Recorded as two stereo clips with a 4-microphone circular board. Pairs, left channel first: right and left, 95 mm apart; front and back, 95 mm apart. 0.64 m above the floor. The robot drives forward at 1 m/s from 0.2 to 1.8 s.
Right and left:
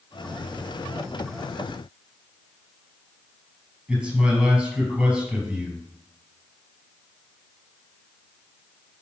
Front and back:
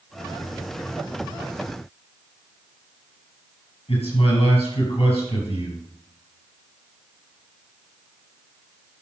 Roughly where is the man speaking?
Ahead.